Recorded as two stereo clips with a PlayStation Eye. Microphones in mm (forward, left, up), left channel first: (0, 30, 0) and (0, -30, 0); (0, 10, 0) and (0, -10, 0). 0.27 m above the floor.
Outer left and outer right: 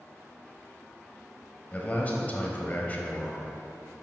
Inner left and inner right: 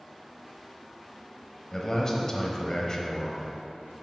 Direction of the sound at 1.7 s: 25° left (ahead or behind).